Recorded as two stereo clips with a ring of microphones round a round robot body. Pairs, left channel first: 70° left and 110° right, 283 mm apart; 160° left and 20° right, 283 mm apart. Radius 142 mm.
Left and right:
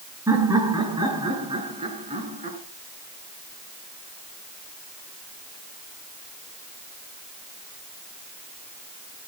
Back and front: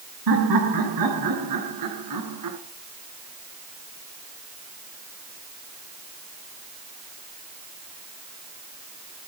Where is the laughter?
35° right, 6 m; by 2.6 s 45° right, 5 m.